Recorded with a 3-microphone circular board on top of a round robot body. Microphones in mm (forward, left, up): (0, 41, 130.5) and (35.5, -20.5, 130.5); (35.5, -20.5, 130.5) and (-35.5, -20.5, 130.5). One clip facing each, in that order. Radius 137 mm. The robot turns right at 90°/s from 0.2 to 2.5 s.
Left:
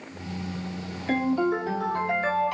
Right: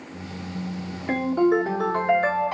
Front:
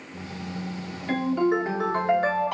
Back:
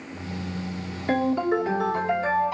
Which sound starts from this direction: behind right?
A ringtone, at 1.1 s.